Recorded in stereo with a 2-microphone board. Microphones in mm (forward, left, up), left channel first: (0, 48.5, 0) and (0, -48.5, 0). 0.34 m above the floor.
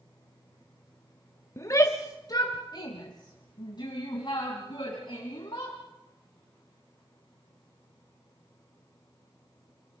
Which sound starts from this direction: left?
A shout, at 1.6 s.